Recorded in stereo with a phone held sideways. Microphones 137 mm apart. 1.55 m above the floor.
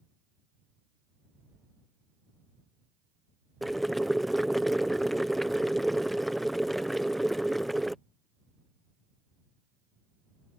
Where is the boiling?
Centre (ahead or behind).